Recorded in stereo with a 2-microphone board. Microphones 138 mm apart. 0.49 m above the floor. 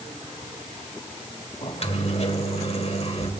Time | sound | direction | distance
1.6 | a microwave | 50° left (ahead or behind) | 1.3 m